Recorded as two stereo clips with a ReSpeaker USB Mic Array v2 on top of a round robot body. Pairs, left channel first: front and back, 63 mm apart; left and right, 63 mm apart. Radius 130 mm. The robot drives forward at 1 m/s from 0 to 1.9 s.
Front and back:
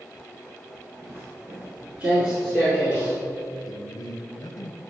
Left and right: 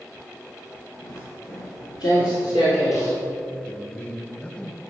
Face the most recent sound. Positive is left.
turn(degrees=15)